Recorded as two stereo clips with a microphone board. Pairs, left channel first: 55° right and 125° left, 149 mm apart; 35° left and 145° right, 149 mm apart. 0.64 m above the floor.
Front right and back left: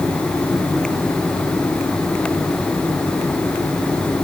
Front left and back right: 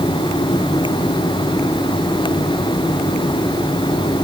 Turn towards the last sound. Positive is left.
No sound to turn to.